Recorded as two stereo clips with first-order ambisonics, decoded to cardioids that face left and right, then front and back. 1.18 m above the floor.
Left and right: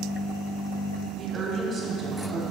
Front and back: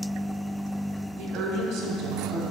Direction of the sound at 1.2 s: 165° right.